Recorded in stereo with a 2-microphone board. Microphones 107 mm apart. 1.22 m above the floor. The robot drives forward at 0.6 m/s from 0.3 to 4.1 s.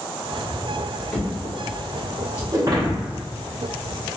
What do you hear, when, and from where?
1.1 s a drawer: 15° left (ahead or behind), 1.5 m; by 2.4 s 30° left (ahead or behind), 0.9 m
2.5 s breaking glass: 35° right (ahead or behind), 1.0 m; by 3.2 s 45° right (ahead or behind), 0.8 m